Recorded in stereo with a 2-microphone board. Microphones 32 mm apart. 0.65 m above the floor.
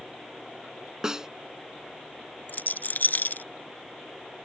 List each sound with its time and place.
1.0 s a snare drum: 20° right (ahead or behind)
2.5 s a rattle: 60° left (ahead or behind)